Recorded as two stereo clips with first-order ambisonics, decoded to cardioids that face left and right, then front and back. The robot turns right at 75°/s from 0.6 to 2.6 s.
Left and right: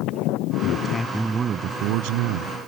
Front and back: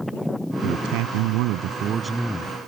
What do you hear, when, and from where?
0.6 s a man speaking: 145° left; by 2.6 s 70° right